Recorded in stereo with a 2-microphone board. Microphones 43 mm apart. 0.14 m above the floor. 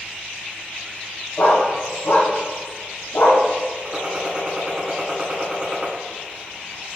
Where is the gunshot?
25° right (ahead or behind), 1.1 m.